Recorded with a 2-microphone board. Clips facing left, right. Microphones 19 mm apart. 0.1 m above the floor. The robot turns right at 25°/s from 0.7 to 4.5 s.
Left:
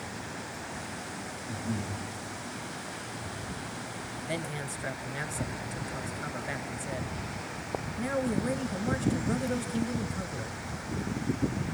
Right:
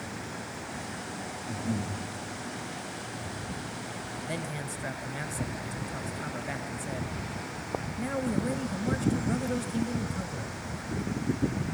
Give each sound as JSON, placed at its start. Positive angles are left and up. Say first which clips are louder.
{"t": 1.5, "sound": "breathing", "louder": "right 2 dB", "side_deg": -90, "distance_m": 8.5}
{"t": 4.3, "sound": "a man speaking", "louder": "left 2 dB", "side_deg": 10, "distance_m": 1.2}